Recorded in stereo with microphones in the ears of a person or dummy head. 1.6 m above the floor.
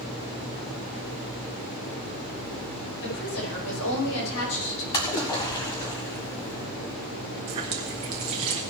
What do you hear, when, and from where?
3.0 s a woman speaking: 85° left, 5.5 m; by 4.8 s 70° left (ahead or behind), 6 m
4.9 s a splash: 20° left (ahead or behind), 1.7 m
7.5 s a running tap: 20° right (ahead or behind), 0.6 m